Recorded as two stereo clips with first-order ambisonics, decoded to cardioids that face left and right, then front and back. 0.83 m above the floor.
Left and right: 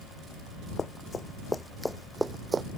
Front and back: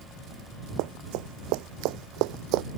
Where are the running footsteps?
160° left; by 2.6 s 160° right.